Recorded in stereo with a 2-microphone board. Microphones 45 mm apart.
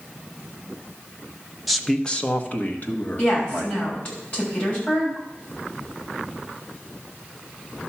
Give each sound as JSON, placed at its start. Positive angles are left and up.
{"t": 1.7, "sound": "a man speaking", "side_deg": -5, "distance_m": 0.8}
{"t": 3.2, "sound": "a woman speaking", "side_deg": 35, "distance_m": 6.0}